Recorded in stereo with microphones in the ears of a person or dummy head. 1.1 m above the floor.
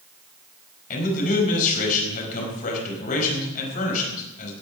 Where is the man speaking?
45° left (ahead or behind), 5 m.